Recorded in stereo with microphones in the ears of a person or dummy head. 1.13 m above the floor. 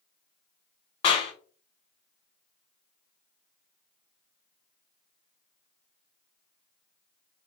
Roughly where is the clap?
Left.